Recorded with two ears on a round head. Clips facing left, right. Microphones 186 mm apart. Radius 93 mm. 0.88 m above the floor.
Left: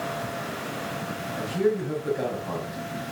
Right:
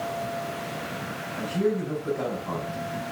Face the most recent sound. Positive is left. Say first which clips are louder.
# left 1 dB
turn(degrees=25)  # may be behind; listen again after turning